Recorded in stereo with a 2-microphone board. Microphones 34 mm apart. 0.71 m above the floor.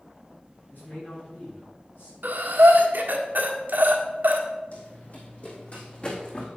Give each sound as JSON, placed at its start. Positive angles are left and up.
{"t": 0.7, "sound": "a man speaking", "side_deg": 75, "distance_m": 5.0}
{"t": 2.2, "sound": "breathing", "side_deg": -70, "distance_m": 1.4}
{"t": 4.7, "sound": "running footsteps", "side_deg": 55, "distance_m": 2.5}